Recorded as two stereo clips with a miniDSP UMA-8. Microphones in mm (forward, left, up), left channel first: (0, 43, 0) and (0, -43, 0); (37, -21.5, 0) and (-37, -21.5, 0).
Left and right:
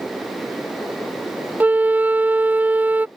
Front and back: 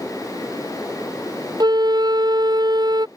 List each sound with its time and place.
1.6 s a flute: 160° right